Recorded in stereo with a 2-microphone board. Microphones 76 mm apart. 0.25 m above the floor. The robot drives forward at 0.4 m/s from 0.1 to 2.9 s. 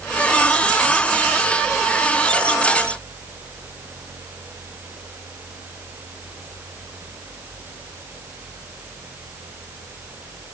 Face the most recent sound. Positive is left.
No sound to turn to.